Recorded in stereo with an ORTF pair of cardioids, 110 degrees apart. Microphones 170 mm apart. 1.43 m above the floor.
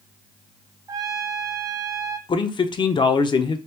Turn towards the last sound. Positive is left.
turn(degrees=30)